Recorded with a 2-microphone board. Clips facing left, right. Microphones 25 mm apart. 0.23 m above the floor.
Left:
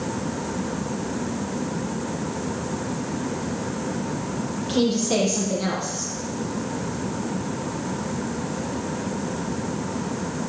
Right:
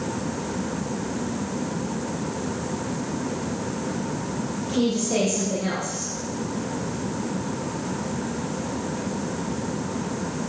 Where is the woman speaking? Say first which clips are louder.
Left 2 dB; 45° left (ahead or behind), 5.5 m.